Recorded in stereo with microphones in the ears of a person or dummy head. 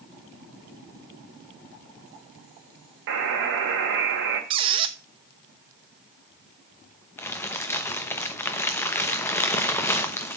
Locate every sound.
3.1 s a buzzer: 60° right (ahead or behind), 3 m
4.5 s a squeak: 30° right (ahead or behind), 0.8 m
7.2 s crumpling: 10° left (ahead or behind), 1.0 m